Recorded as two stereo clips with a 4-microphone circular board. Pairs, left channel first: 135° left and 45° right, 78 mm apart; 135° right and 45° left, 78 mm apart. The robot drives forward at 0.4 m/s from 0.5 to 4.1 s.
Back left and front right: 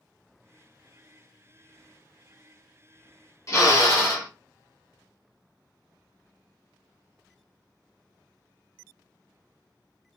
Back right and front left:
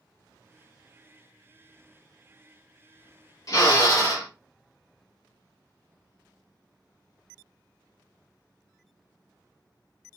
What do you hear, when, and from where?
3.5 s a drill: 175° right, 1.8 m; by 4.3 s straight behind, 2 m